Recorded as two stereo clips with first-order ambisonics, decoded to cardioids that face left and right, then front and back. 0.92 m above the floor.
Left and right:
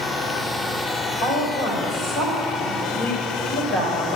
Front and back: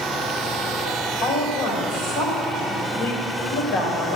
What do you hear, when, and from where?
1.2 s a woman speaking: 35° left, 4 m